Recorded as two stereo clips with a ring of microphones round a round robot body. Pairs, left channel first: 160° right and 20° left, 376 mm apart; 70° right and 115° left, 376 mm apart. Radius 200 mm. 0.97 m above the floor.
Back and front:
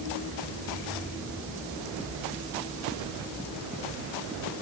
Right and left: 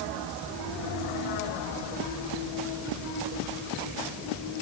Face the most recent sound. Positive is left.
No sound to turn to.